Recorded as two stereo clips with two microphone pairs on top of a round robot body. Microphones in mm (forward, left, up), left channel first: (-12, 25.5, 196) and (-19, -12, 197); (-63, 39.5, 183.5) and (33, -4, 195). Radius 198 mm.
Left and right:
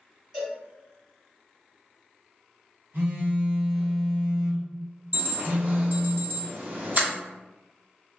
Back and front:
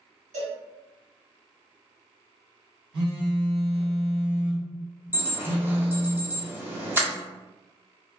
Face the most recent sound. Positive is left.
turn(degrees=-95)